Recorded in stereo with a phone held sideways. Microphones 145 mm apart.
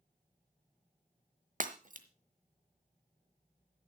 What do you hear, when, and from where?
1.6 s breaking glass: 60° right (ahead or behind), 1.1 m